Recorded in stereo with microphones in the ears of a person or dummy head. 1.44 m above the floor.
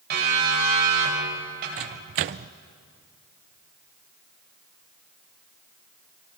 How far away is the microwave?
About 0.5 m.